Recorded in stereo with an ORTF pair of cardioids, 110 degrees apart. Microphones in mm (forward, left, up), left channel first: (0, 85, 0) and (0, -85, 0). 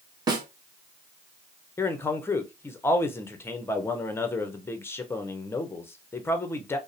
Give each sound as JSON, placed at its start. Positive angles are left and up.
{"t": 0.3, "sound": "a snare drum", "azimuth_deg": -25, "distance_m": 1.0}
{"t": 1.8, "sound": "a man speaking", "azimuth_deg": 15, "distance_m": 0.7}